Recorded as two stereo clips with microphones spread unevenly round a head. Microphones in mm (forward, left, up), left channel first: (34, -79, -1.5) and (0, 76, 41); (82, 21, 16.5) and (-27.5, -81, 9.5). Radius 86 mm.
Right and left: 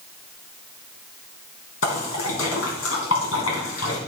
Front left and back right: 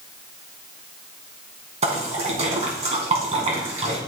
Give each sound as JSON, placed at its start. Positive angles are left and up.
{"t": 1.8, "sound": "a splash", "azimuth_deg": -90, "distance_m": 3.0}